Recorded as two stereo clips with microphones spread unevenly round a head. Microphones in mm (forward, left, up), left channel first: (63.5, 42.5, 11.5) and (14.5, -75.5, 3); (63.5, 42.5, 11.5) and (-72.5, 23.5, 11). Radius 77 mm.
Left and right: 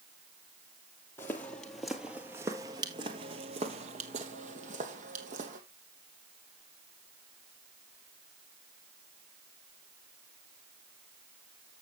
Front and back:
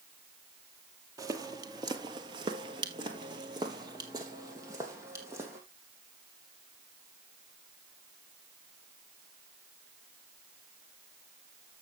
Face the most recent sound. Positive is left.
turn(degrees=-100)